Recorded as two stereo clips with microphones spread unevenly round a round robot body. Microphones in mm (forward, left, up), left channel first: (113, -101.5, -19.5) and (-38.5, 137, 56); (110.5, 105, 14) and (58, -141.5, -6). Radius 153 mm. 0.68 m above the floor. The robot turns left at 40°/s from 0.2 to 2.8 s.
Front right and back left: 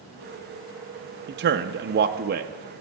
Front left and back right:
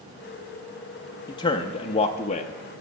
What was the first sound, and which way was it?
A man speaking, 130° left.